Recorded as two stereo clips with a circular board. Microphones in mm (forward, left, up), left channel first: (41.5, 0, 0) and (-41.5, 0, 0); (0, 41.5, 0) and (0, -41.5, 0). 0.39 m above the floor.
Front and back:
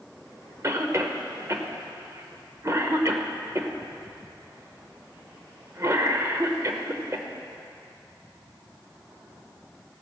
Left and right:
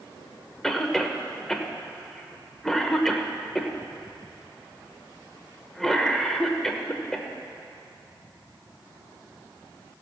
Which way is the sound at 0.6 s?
175° left.